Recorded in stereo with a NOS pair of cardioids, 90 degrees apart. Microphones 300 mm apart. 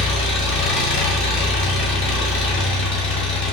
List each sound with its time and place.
0.0 s an engine running: 40° left, 2.5 m